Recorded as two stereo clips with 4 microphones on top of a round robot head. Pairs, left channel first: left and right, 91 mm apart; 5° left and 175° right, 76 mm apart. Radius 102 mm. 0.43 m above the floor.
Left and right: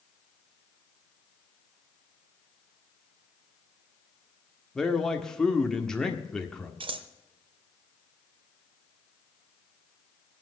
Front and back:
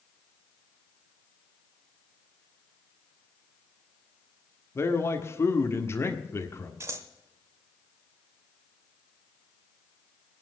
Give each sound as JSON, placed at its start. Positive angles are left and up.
{"t": 4.8, "sound": "a man speaking", "azimuth_deg": 10, "distance_m": 1.6}
{"t": 6.8, "sound": "scissors", "azimuth_deg": -115, "distance_m": 0.8}